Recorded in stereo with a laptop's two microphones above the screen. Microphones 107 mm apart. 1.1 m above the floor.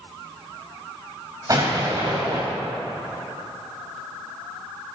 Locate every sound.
1.5 s an explosion: 35° right (ahead or behind), 4 m